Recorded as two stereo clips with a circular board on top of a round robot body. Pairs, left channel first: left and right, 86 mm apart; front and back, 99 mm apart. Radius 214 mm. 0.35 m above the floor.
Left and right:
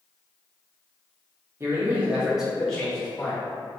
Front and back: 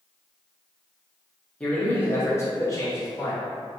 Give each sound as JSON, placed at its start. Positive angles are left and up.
{"t": 1.6, "sound": "a man speaking", "azimuth_deg": -70, "distance_m": 1.3}